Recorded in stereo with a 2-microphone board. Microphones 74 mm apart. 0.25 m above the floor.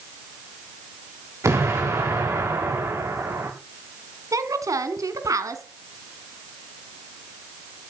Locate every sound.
1.4 s an explosion: 40° right (ahead or behind), 9 m
4.3 s a woman speaking: 50° right (ahead or behind), 3 m